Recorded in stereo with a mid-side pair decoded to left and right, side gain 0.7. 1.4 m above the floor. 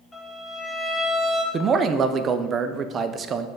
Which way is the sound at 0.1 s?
25° left.